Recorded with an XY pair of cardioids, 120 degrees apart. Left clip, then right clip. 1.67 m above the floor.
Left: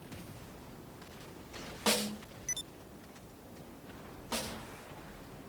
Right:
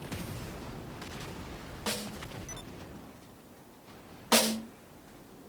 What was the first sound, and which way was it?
A snare drum, 30° left.